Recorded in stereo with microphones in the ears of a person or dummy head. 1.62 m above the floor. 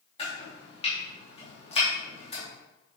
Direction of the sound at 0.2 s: 25° left (ahead or behind).